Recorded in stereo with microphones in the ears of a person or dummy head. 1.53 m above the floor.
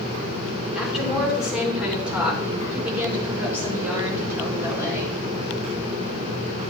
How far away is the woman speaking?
About 5 m.